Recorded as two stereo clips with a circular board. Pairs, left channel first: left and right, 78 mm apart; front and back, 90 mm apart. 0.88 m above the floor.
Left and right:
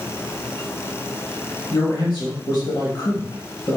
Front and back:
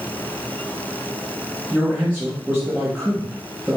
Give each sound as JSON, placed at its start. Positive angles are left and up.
{"t": 1.7, "sound": "a man speaking", "azimuth_deg": 105, "distance_m": 1.1}